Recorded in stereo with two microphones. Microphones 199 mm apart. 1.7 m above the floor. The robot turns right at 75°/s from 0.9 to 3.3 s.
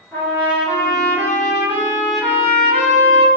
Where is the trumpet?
10° left, 1.0 m; by 3.3 s 170° right, 1.0 m.